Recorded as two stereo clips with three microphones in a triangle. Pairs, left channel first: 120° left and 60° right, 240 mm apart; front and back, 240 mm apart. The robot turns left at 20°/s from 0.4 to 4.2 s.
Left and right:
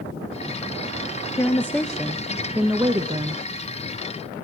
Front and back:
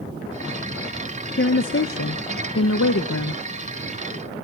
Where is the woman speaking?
45° left, 0.7 m; by 3.4 s straight ahead, 0.7 m.